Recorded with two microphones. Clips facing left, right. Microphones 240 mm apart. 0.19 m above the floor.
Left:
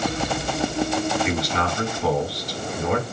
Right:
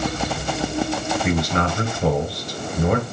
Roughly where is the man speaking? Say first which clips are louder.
Right 3 dB; right.